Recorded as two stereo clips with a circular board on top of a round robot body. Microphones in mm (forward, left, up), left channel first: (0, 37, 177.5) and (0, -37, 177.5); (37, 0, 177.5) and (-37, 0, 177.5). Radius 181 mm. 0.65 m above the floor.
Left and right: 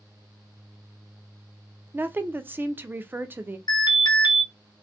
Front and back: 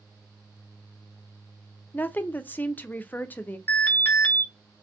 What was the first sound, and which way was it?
A woman speaking, 50° right.